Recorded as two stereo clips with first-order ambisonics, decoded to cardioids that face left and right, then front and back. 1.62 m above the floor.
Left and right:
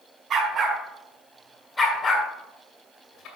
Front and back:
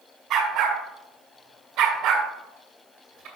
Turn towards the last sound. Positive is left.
turn(degrees=130)